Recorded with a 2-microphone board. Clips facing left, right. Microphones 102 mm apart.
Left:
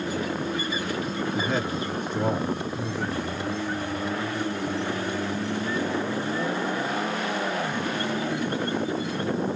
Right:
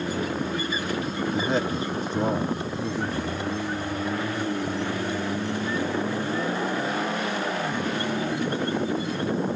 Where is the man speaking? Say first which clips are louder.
Right 3 dB; 20° right (ahead or behind), 2 m.